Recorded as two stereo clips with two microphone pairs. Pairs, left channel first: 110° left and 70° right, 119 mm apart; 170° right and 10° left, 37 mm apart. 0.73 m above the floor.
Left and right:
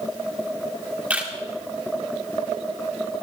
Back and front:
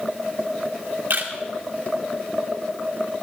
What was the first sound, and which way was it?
A camera shutter, 10° left.